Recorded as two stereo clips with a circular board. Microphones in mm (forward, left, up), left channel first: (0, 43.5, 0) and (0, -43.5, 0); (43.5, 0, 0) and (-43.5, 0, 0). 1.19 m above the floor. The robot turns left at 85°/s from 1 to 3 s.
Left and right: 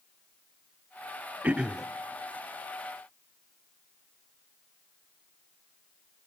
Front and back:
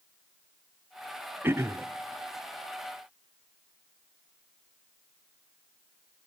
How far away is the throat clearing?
About 0.6 m.